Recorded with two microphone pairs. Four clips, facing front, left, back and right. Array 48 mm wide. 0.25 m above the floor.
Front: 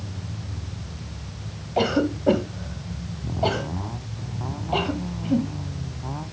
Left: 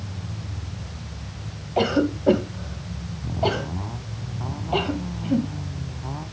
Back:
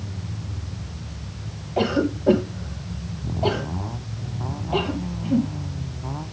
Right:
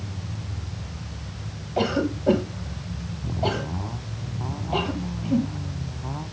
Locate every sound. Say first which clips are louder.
1.8 s a cough: left 3 dB, even; 50° left, 1.5 m